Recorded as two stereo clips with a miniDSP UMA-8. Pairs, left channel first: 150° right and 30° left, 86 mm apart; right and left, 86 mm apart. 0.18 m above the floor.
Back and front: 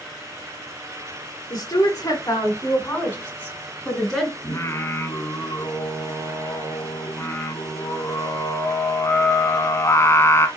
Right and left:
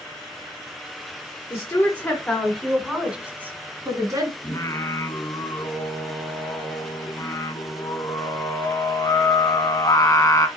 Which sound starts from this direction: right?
Singing, at 4.4 s.